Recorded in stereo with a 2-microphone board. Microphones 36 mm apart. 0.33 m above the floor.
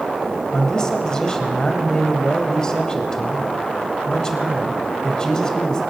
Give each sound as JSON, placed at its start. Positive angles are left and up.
{"t": 0.5, "sound": "a man speaking", "side_deg": 20, "distance_m": 1.7}